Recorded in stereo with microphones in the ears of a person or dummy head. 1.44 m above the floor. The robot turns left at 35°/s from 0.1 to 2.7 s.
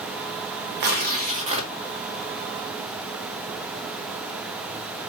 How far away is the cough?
I don't hear a cough.